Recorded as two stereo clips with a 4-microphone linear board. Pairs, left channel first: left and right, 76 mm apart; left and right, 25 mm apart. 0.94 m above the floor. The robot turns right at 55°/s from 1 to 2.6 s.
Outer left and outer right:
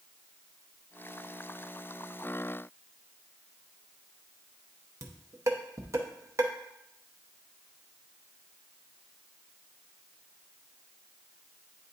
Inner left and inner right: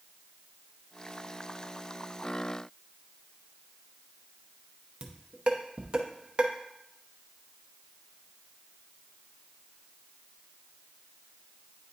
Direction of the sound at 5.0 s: 40° right (ahead or behind).